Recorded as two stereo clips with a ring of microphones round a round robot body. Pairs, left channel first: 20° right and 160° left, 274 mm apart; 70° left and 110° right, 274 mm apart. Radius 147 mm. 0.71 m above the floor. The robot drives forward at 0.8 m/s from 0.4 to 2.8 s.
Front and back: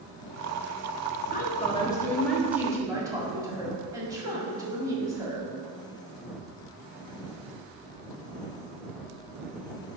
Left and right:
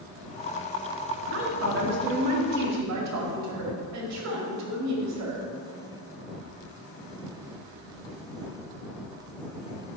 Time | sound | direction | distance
1.3 | a woman speaking | 75° right | 1.5 m